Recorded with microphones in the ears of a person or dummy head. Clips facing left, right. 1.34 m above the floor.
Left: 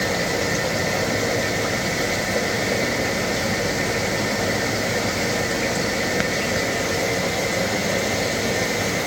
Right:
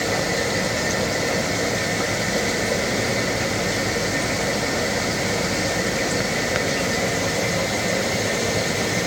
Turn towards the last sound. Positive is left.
No sound to turn to.